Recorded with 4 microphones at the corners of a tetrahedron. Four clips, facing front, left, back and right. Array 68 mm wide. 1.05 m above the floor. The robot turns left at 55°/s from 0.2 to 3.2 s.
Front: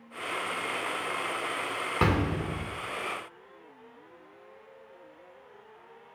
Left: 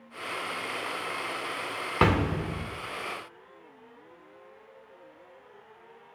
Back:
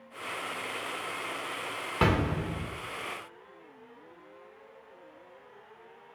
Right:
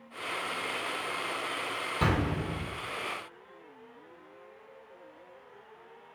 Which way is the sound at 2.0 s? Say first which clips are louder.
Left 6 dB, back 1 dB; 85° left.